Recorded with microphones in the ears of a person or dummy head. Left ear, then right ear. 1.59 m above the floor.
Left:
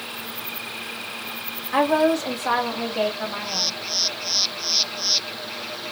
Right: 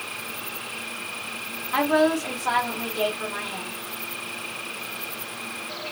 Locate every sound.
1.7 s a woman speaking: 35° left (ahead or behind), 2 m